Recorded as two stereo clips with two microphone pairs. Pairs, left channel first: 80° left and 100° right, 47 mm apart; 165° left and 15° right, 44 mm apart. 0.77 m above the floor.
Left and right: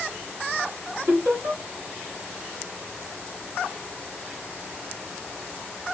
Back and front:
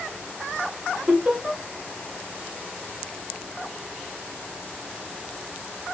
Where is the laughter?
80° right, 2 m.